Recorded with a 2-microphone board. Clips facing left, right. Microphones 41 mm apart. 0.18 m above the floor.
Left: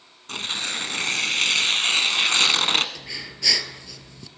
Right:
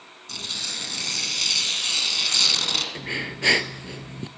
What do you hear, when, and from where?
0.3 s tearing paper: 45° left (ahead or behind), 1.0 m
3.0 s breathing: 35° right (ahead or behind), 0.7 m